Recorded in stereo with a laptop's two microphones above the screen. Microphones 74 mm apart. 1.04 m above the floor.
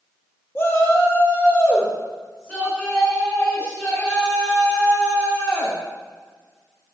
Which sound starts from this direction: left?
A shout, at 0.6 s.